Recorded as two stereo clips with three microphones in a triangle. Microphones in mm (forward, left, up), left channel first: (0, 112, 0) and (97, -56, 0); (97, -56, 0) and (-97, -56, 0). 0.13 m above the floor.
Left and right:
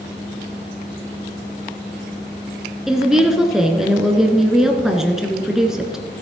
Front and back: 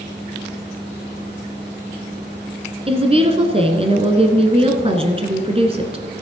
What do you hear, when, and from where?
2.9 s a woman speaking: 145° right, 1.2 m